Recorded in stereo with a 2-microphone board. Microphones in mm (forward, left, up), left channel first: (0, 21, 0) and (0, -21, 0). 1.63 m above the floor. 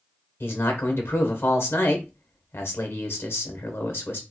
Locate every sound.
0.4 s a man speaking: 65° left (ahead or behind), 1.1 m